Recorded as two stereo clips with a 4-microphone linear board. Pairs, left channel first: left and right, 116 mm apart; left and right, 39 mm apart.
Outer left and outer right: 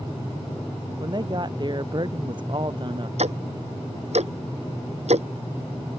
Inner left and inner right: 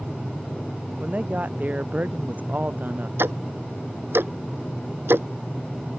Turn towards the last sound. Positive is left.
turn(degrees=-70)  # may be behind; listen again after turning